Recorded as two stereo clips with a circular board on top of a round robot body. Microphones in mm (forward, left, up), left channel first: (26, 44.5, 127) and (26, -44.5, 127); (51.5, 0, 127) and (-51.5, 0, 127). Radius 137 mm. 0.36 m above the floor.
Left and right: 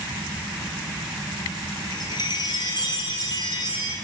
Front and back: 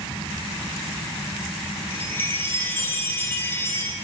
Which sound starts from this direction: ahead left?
A chime, at 1.9 s.